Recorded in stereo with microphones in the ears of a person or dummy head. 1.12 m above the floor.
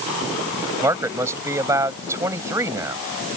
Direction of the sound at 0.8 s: 15° right (ahead or behind).